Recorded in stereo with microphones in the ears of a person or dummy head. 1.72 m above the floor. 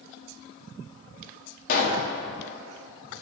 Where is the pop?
55° left (ahead or behind), 1.3 m.